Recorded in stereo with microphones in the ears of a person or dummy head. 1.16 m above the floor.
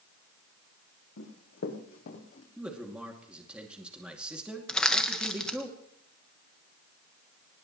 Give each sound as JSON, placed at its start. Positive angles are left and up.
{"t": 1.2, "sound": "running footsteps", "side_deg": 65, "distance_m": 4.5}
{"t": 2.6, "sound": "a man speaking", "side_deg": -5, "distance_m": 2.5}
{"t": 4.7, "sound": "crushing", "side_deg": 5, "distance_m": 1.3}